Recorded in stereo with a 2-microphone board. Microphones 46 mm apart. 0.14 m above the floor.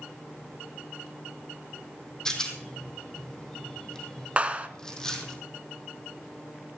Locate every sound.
2.2 s a rattle: 15° left (ahead or behind), 2.5 m
4.4 s a clap: 30° right (ahead or behind), 1.1 m